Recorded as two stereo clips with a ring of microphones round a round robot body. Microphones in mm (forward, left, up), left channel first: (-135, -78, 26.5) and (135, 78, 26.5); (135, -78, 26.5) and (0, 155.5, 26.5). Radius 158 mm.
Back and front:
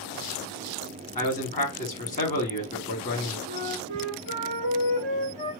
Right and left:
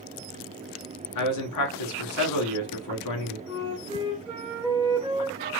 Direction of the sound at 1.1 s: 85° right.